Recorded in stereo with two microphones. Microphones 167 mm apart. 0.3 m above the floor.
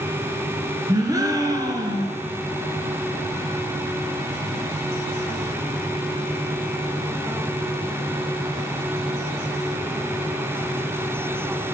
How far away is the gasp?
About 1.0 m.